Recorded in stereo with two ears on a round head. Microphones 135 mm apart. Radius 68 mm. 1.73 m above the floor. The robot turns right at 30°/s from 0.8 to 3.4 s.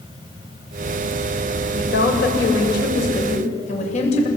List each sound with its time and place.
1.8 s a woman speaking: 80° left, 7.5 m; by 4.3 s 130° left, 7.5 m